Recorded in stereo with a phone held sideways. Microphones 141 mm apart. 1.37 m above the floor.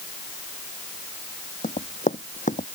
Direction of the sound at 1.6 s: 60° left (ahead or behind).